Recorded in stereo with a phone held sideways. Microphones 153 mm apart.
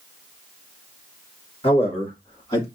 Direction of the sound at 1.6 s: 40° left (ahead or behind).